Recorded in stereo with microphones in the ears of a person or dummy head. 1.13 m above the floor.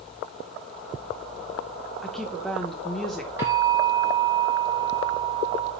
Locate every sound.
2.0 s a woman speaking: 5° left (ahead or behind), 0.6 m
3.4 s a bell: 20° right (ahead or behind), 2.5 m